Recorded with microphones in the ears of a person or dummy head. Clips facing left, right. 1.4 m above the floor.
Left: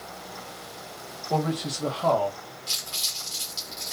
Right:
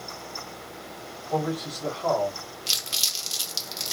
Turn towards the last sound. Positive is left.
turn(degrees=-45)  # may be behind; listen again after turning